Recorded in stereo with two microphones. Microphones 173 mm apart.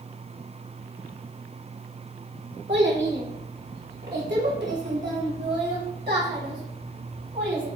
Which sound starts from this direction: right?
A child speaking, at 2.7 s.